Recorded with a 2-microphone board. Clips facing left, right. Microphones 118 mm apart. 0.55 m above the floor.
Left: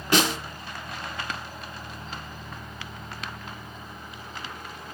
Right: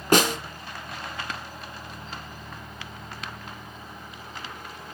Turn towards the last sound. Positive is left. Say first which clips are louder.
# right 3 dB
turn(degrees=-45)  # may be behind; listen again after turning